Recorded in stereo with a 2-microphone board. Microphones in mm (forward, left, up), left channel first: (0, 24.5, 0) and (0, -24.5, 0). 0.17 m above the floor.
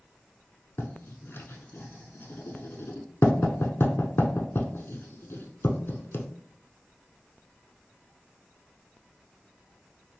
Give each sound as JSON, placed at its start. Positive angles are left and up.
{"t": 0.8, "sound": "writing", "side_deg": 55, "distance_m": 0.6}